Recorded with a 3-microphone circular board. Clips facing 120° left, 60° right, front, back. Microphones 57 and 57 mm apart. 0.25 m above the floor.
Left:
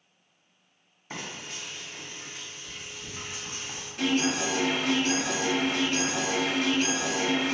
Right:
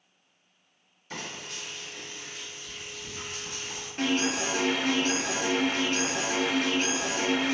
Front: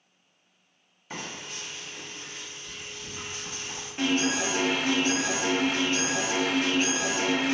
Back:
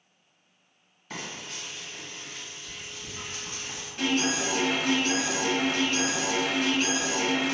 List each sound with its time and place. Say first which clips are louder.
1.1 s frying: even, even; 80° left, 1.3 m
4.0 s an alarm: left 1 dB, front 1 dB; 45° right, 0.8 m